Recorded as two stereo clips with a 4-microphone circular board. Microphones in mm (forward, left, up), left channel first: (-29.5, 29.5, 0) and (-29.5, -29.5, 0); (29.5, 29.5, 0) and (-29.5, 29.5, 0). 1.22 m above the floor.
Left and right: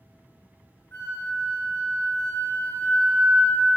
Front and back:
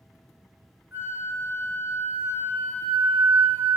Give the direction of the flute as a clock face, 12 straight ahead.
8 o'clock.